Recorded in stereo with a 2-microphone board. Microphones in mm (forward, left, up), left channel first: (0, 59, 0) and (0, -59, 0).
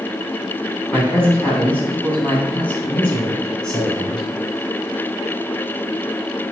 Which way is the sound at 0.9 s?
15° left (ahead or behind).